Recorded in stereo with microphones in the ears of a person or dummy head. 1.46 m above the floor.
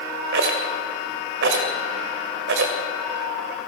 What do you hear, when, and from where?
0.3 s a rattle: 60° right (ahead or behind), 2.5 m